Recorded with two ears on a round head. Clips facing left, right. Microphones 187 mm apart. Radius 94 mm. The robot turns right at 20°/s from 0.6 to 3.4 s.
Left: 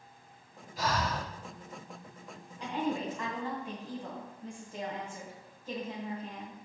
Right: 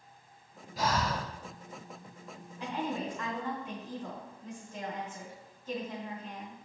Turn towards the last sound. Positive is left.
turn(degrees=10)  # may be behind; listen again after turning